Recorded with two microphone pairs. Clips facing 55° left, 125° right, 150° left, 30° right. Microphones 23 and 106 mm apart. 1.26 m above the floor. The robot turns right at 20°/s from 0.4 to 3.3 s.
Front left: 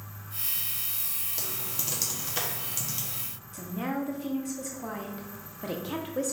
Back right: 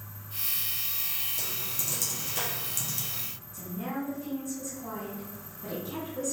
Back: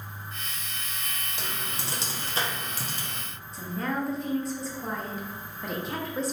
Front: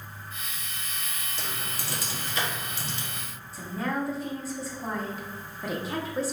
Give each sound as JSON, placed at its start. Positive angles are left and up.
{"t": 1.4, "sound": "typing on a keyboard", "azimuth_deg": 75, "distance_m": 0.9}
{"t": 3.5, "sound": "a woman speaking", "azimuth_deg": 60, "distance_m": 1.0}